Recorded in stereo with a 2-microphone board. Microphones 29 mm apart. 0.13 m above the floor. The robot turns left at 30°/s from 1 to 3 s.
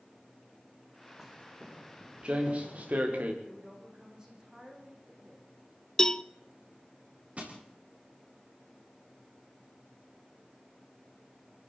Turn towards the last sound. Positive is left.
turn(degrees=-50)  # may be behind; listen again after turning